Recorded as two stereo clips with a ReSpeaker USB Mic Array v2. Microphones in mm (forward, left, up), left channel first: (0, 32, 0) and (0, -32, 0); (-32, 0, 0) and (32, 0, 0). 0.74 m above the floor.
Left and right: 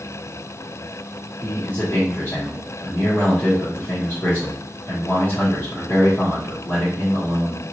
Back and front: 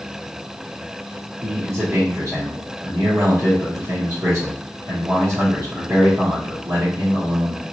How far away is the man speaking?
About 1.5 m.